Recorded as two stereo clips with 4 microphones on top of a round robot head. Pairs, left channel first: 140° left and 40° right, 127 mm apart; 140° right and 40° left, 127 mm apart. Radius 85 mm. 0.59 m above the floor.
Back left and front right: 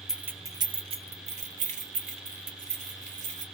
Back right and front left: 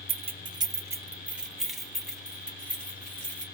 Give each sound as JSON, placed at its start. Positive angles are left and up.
{"t": 0.1, "sound": "keys jangling", "azimuth_deg": 45, "distance_m": 0.7}